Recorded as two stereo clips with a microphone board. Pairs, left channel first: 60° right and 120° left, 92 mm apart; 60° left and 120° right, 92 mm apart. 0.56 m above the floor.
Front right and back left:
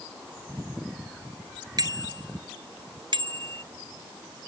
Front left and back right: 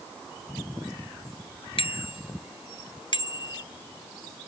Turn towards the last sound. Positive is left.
turn(degrees=95)